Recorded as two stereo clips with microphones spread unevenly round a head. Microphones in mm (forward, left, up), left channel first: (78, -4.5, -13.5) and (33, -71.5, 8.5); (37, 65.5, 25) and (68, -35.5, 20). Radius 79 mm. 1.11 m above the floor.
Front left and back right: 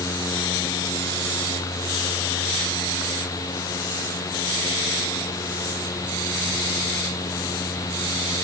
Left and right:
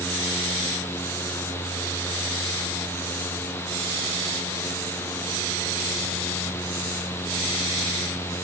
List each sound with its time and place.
Only background noise.